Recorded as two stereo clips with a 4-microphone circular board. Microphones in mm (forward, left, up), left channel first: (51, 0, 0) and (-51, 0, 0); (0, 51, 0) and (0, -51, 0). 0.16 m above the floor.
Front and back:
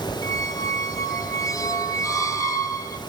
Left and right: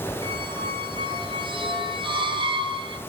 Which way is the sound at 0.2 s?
55° right.